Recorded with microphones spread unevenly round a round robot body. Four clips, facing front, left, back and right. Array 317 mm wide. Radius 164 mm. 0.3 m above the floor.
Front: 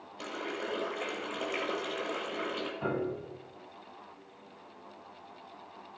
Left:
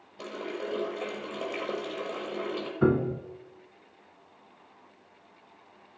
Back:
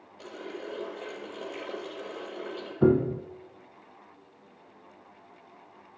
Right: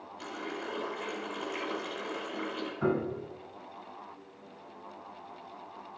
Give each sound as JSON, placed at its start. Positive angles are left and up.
{"t": 0.2, "sound": "a running tap", "azimuth_deg": 50, "distance_m": 6.5}
{"t": 2.8, "sound": "a piano", "azimuth_deg": 150, "distance_m": 1.3}